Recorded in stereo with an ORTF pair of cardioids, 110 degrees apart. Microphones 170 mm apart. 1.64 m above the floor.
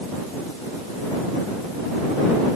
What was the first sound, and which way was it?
Only background noise.